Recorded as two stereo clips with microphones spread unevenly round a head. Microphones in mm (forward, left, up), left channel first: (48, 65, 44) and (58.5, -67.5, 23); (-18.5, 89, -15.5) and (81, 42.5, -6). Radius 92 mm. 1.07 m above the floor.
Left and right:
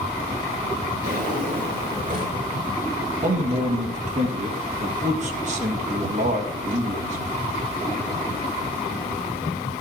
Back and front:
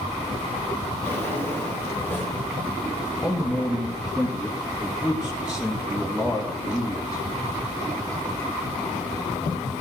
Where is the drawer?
70° right, 5.5 m.